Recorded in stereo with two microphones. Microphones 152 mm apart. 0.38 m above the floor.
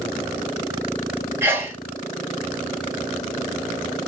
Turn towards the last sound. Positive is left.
turn(degrees=-15)  # may be behind; listen again after turning